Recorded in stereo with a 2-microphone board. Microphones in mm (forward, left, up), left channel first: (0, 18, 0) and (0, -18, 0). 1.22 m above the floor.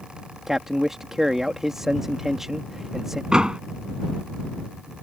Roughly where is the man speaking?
Centre.